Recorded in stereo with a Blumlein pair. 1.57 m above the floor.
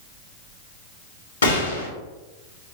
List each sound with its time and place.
1.4 s a gunshot: 70° left, 1.4 m